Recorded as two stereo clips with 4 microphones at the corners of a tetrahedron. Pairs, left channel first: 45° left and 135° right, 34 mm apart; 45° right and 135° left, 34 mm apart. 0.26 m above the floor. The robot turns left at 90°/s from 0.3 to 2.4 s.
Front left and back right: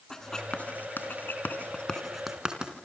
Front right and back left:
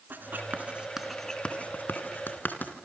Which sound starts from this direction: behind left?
Writing, at 0.1 s.